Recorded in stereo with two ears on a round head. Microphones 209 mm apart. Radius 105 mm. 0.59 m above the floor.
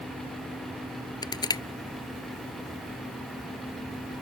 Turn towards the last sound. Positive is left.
turn(degrees=20)  # may be behind; listen again after turning